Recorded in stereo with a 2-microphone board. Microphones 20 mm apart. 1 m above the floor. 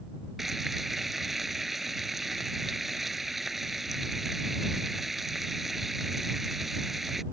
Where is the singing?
No singing in this recording.